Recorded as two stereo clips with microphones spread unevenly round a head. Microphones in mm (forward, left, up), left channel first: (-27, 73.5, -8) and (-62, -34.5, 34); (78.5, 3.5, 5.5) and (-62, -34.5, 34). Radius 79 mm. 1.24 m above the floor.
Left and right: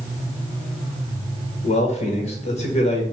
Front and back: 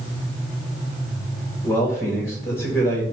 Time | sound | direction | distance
1.6 | a man speaking | 90° left | 1.3 m